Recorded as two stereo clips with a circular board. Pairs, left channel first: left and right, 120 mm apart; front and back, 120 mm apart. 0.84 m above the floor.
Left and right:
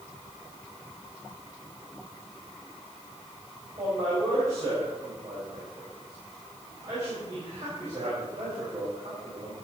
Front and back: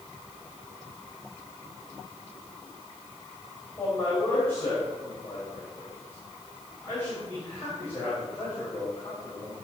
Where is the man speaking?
70° right, 4 m.